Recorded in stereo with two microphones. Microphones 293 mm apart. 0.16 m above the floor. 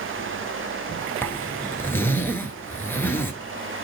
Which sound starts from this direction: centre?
A zipper, at 1.2 s.